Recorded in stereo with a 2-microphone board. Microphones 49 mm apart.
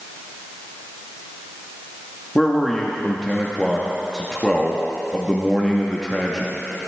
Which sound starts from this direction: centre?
A man speaking, at 2.4 s.